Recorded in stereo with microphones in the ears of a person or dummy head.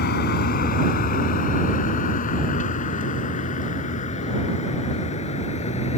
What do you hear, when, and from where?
0.0 s a vehicle: 65° left (ahead or behind); by 6.0 s 45° left (ahead or behind)